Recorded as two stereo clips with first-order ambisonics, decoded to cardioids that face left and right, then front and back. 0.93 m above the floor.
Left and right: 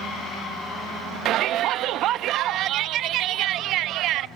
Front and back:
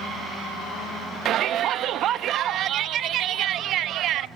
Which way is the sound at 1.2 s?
130° right.